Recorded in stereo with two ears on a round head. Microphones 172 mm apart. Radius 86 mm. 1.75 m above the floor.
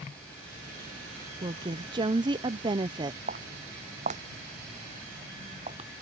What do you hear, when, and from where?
1.4 s a woman speaking: 25° right (ahead or behind)
3.3 s footsteps: 40° right (ahead or behind); by 5.9 s 30° right (ahead or behind)